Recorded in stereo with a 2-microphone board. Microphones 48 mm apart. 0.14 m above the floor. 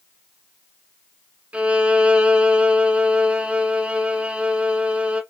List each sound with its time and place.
1.5 s a violin: 25° right (ahead or behind), 0.6 m